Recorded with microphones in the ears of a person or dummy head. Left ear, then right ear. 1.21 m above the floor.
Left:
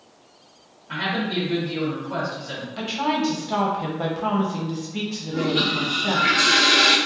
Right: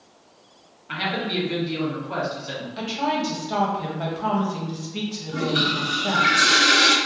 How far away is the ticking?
I don't hear ticking.